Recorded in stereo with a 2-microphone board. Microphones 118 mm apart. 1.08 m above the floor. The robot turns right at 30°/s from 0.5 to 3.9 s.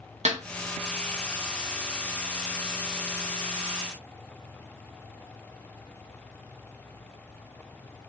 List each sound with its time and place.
0.2 s a snare drum: 70° right (ahead or behind), 0.5 m